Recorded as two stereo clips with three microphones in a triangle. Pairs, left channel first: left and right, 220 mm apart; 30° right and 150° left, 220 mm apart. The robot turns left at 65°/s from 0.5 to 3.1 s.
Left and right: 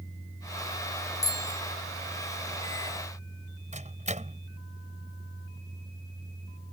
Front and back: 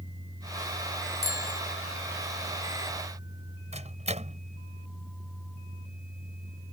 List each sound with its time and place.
1.2 s a bicycle bell: 165° left; by 1.6 s 140° left
3.7 s a microwave: 150° right